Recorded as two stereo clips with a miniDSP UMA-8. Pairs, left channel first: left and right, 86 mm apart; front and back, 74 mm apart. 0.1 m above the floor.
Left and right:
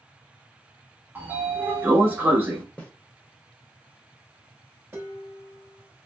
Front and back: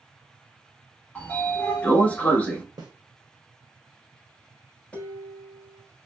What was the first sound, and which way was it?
A sliding door, 50° right.